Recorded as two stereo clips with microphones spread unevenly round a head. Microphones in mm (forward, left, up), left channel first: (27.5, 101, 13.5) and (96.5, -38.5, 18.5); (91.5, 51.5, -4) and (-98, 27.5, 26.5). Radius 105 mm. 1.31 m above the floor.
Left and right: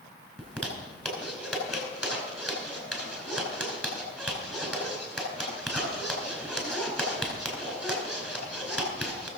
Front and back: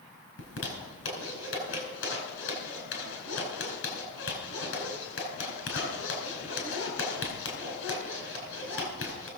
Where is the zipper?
30° left, 4.5 m.